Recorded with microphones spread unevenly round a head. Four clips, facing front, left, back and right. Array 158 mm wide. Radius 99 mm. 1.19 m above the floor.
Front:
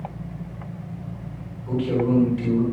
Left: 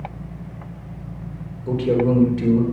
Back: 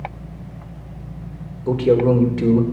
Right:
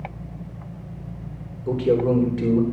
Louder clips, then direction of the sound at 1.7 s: Left 1 dB, back 7 dB; 150° right.